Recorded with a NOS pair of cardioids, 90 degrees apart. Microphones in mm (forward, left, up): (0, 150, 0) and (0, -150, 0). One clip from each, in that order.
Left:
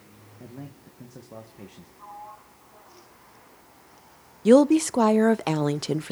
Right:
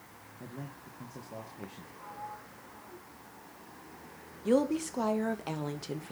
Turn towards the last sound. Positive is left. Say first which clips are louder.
# left 11 dB
turn(degrees=55)